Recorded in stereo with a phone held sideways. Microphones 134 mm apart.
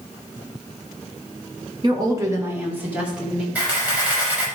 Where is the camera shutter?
10° right (ahead or behind), 5.5 m.